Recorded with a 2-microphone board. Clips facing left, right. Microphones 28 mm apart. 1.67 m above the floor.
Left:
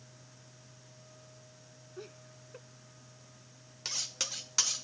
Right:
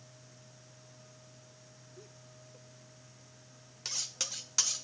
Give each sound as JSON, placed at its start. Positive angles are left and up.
{"t": 2.0, "sound": "laughter", "side_deg": 45}
{"t": 3.9, "sound": "cutlery clinking", "side_deg": 10}